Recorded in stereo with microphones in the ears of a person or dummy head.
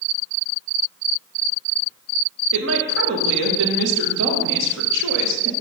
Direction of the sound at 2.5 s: 70° right (ahead or behind).